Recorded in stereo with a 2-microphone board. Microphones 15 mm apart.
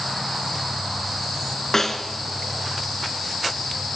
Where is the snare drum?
25° left (ahead or behind), 1.9 m.